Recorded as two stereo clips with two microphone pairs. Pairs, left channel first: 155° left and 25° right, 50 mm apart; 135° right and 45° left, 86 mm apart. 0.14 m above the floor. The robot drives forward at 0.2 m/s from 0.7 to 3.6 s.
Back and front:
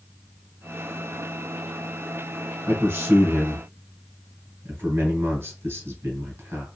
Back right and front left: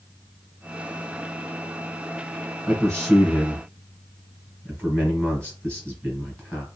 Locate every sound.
2.7 s a man speaking: 50° right, 1.9 m; by 6.7 s 60° right, 1.8 m